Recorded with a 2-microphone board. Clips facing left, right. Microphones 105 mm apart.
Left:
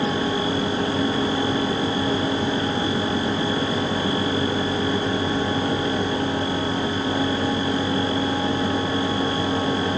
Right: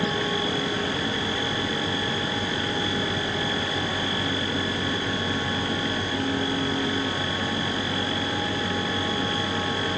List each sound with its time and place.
Only background noise.